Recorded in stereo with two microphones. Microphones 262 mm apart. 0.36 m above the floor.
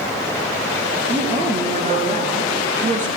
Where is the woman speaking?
25° right (ahead or behind), 6.5 m.